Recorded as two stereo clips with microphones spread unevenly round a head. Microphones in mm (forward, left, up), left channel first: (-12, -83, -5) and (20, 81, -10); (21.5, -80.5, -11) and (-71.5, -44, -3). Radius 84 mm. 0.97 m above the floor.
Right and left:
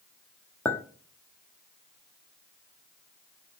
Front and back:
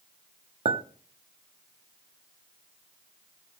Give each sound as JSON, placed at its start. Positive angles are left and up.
{"t": 0.7, "sound": "a clink", "azimuth_deg": 180, "distance_m": 0.9}